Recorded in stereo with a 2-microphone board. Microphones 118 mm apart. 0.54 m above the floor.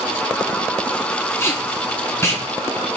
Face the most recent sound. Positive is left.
turn(degrees=20)  # may be behind; listen again after turning